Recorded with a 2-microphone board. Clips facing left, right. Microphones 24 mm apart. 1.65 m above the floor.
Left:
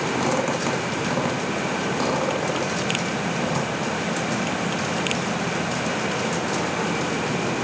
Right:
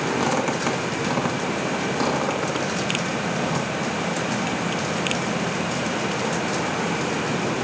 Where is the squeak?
5° right (ahead or behind), 2.5 m.